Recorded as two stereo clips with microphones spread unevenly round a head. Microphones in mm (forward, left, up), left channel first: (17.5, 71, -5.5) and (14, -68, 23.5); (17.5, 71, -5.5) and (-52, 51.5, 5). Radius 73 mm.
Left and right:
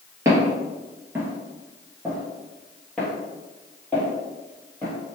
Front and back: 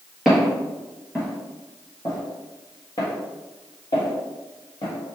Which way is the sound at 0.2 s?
90° right.